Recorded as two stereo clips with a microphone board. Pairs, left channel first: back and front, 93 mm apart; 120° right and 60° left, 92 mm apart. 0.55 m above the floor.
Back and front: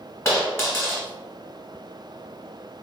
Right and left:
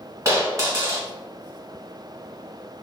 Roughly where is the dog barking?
No dog barking in this recording.